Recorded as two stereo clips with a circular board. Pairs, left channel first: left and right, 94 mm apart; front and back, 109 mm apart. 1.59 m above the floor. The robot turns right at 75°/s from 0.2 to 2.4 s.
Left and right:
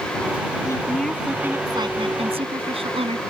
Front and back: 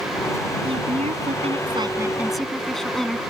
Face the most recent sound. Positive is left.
turn(degrees=-90)